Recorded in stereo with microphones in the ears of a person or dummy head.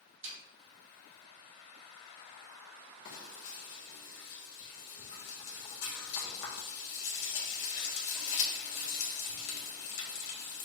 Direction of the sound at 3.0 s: 65° left (ahead or behind).